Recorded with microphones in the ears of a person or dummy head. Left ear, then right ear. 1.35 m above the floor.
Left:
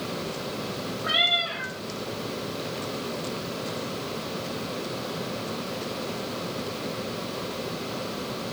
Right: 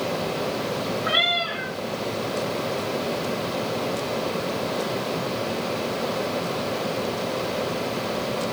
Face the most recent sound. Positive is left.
turn(degrees=0)  # may be behind; listen again after turning